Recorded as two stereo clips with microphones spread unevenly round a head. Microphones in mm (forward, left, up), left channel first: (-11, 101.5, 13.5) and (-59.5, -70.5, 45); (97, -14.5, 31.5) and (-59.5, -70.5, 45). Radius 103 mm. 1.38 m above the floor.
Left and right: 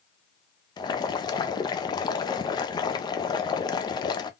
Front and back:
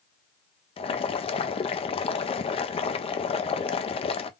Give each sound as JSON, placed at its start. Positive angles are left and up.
{"t": 0.8, "sound": "boiling", "azimuth_deg": 40, "distance_m": 0.5}